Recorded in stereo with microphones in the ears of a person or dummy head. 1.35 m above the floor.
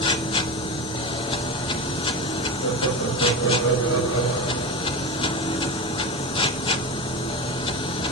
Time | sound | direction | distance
0.0 | a machine running | 30° left (ahead or behind) | 0.8 m
2.6 | laughter | 75° left (ahead or behind) | 7 m